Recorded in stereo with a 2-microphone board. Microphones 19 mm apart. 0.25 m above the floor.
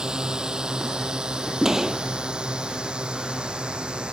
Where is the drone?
40° right (ahead or behind); by 4.1 s 60° right (ahead or behind).